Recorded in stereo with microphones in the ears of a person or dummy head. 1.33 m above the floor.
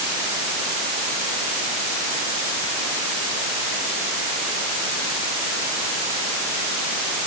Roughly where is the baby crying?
No baby crying in this recording.